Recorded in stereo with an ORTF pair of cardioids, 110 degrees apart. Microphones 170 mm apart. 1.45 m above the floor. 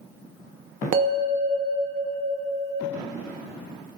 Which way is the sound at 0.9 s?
55° right.